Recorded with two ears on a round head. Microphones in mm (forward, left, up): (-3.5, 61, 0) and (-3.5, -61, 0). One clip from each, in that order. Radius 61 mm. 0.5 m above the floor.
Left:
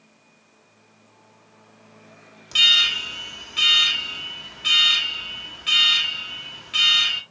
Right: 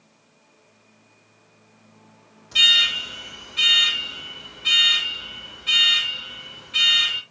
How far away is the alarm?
About 1.8 m.